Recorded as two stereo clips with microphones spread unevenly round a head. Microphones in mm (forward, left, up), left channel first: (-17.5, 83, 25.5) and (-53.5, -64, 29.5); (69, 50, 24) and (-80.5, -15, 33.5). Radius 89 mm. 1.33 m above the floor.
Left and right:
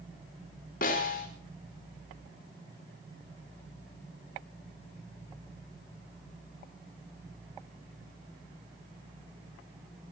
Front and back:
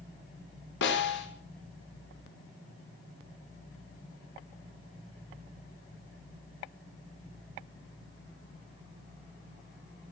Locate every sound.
0.8 s a snare drum: 30° left, 4.5 m